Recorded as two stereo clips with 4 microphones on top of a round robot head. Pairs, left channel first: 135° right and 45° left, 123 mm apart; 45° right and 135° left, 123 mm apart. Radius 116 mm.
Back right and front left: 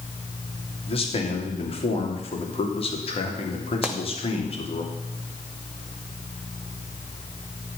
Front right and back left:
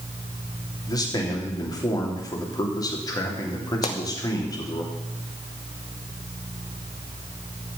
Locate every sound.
0.9 s a man speaking: 100° right, 3 m
3.8 s a pop: 35° right, 1.5 m